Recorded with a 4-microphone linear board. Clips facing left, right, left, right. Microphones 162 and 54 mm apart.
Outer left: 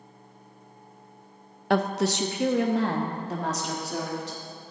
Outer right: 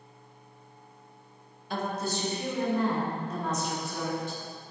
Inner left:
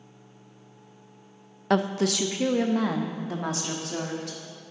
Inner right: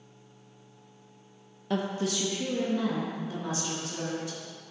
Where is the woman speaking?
70° left (ahead or behind), 0.5 m; by 4.4 s 80° left, 1.9 m.